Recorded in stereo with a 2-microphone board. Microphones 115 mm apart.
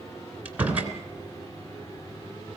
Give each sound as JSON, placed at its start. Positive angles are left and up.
{"t": 0.5, "sound": "a door slam", "side_deg": -10, "distance_m": 3.0}